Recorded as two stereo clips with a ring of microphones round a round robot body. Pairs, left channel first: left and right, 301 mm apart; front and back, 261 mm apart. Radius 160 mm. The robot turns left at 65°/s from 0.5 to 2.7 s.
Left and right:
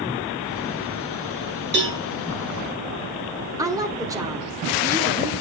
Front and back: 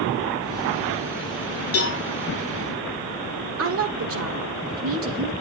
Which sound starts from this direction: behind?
A woman speaking, at 3.6 s.